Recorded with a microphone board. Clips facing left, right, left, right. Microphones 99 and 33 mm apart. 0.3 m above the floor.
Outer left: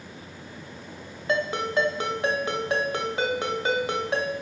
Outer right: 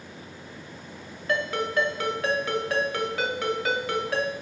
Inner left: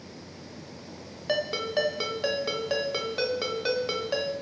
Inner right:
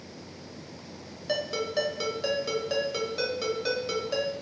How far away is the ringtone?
About 0.5 m.